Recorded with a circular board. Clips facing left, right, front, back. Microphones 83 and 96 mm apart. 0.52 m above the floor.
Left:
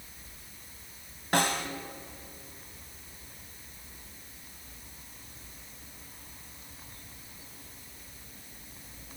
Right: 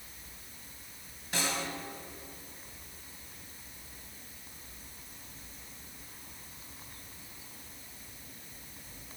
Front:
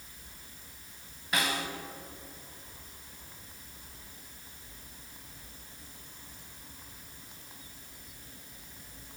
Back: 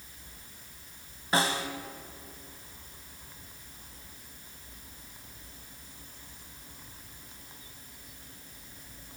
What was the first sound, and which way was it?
A snare drum, 120° left.